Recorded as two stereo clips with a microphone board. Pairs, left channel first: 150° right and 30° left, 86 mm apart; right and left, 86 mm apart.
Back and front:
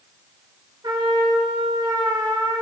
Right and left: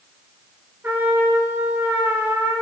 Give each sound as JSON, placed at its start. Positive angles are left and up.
{"t": 0.8, "sound": "a trumpet", "azimuth_deg": 25, "distance_m": 2.0}